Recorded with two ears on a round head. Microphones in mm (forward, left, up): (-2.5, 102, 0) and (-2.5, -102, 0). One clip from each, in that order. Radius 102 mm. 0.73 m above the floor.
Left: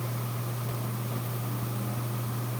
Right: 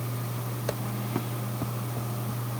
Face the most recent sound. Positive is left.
No sound to turn to.